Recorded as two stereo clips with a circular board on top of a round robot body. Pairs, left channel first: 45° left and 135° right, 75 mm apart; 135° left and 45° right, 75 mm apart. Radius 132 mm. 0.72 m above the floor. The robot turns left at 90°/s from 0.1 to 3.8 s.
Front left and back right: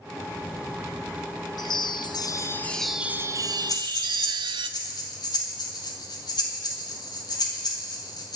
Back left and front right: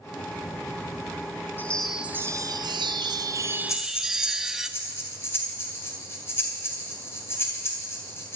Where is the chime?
70° left, 0.7 m; by 4.7 s 125° right, 0.7 m.